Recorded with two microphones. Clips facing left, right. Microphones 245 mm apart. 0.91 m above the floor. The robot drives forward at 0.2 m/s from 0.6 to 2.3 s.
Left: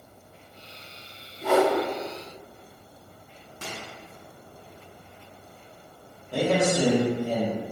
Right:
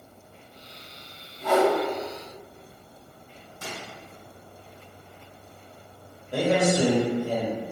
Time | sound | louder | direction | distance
1.4 | a whoosh | even | 5° left (ahead or behind) | 0.8 m
3.6 | a microwave | even | 85° left | 0.7 m
6.3 | a man speaking | right 1 dB | 15° right (ahead or behind) | 1.3 m